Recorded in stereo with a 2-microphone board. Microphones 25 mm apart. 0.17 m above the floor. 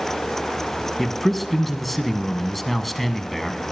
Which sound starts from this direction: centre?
A man speaking, at 1.0 s.